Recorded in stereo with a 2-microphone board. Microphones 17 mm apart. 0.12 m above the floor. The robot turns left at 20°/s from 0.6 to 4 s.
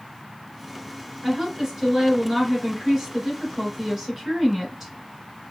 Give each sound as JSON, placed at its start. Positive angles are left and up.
{"t": 1.2, "sound": "a woman speaking", "azimuth_deg": -75, "distance_m": 1.7}